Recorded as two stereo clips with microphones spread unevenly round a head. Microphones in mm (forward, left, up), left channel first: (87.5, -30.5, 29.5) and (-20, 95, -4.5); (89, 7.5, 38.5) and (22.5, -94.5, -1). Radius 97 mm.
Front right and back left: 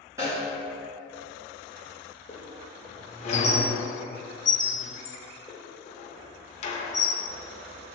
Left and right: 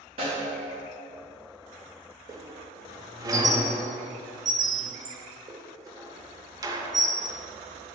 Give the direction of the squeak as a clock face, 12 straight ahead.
2 o'clock.